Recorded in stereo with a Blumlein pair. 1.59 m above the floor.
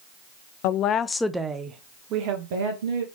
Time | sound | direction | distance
0.6 | a woman speaking | 45° left | 0.5 m